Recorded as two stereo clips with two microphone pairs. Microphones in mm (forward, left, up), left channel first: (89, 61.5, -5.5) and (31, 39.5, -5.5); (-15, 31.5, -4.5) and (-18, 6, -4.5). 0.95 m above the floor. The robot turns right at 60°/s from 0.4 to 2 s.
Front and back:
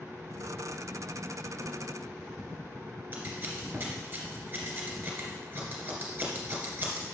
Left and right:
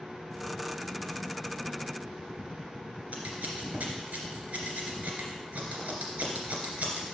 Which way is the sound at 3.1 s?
105° right.